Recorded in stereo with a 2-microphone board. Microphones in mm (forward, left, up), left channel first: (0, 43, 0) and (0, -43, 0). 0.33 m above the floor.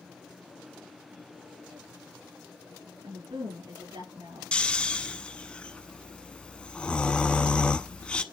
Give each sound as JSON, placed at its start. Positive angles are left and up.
{"t": 3.0, "sound": "a woman speaking", "side_deg": -70, "distance_m": 5.0}
{"t": 4.5, "sound": "snoring", "side_deg": 15, "distance_m": 0.8}